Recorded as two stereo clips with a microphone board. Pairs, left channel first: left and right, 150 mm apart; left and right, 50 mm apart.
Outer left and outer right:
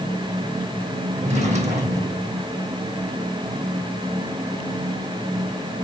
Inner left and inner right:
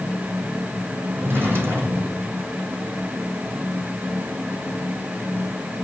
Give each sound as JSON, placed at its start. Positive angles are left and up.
{"t": 1.1, "sound": "a drawer", "side_deg": -50, "distance_m": 1.9}